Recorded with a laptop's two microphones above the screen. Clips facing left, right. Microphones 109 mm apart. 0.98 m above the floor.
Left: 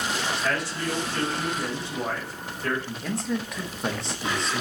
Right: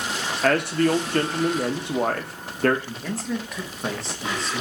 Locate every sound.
0.4 s a man speaking: 65° right (ahead or behind), 0.6 m
2.9 s a man speaking: centre (ahead or behind), 0.7 m